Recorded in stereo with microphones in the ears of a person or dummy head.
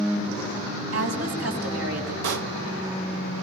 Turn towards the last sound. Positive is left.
turn(degrees=-70)  # may be behind; listen again after turning